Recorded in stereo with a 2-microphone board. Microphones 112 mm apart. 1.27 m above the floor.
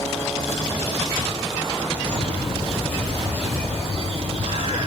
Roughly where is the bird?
Right.